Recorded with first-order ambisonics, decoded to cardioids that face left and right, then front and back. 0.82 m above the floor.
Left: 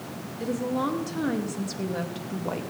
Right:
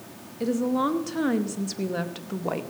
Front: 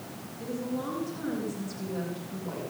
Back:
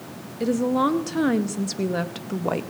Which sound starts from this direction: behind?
A woman speaking, at 0.4 s.